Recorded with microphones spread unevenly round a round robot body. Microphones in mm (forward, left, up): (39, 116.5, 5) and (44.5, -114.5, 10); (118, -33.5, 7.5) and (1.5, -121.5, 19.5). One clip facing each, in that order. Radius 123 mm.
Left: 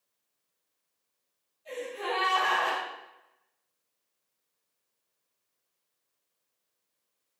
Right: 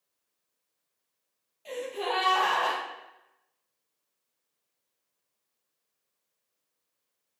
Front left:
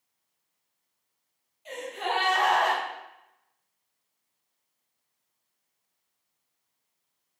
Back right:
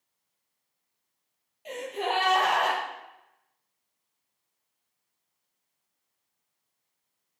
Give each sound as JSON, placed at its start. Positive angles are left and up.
{"t": 1.6, "sound": "a gasp", "azimuth_deg": -120, "distance_m": 5.5}